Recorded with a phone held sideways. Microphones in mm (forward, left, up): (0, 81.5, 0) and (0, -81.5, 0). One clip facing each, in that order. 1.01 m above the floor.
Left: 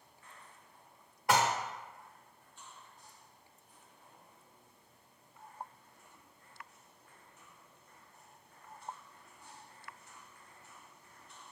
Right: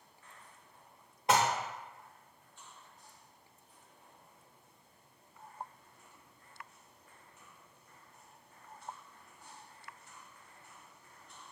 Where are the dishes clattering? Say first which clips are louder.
Right 1 dB; 20° right (ahead or behind), 0.7 m.